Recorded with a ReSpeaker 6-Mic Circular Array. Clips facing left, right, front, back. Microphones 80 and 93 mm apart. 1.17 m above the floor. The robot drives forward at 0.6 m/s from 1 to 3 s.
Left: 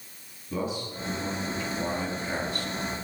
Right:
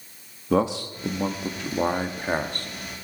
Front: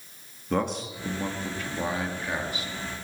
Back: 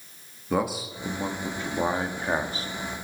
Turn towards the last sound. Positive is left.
turn(degrees=-135)